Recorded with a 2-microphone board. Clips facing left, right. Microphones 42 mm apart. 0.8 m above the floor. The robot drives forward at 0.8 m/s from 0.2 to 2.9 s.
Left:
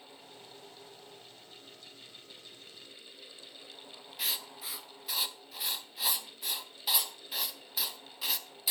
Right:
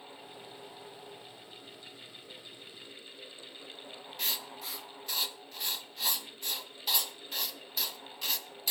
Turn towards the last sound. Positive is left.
turn(degrees=5)  # may be behind; listen again after turning